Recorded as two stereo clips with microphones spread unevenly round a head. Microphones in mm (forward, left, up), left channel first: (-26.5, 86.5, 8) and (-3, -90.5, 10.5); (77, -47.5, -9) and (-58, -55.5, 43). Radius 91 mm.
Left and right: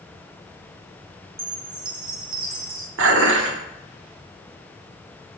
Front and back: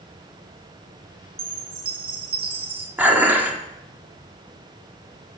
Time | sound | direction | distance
1.4 | a chime | 125° right | 1.5 m
3.0 | dishes clattering | 100° right | 1.3 m